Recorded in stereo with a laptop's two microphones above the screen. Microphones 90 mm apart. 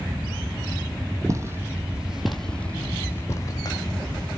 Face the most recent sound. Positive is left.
turn(degrees=50)  # may be behind; listen again after turning